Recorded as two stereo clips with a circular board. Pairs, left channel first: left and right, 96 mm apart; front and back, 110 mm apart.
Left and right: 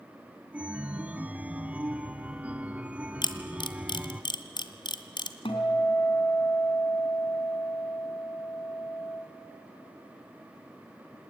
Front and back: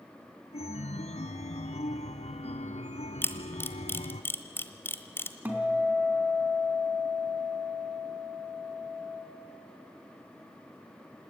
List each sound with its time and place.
0.5 s a chime: 10° right, 0.9 m
3.2 s a camera shutter: 65° left, 1.3 m
5.5 s a guitar: 105° left, 3 m